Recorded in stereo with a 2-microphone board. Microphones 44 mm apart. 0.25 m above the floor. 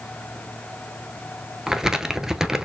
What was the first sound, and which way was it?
Crumpling, 10° right (ahead or behind).